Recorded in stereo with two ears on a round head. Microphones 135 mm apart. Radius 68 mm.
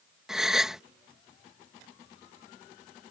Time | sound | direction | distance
0.3 | a gasp | 5° right (ahead or behind) | ?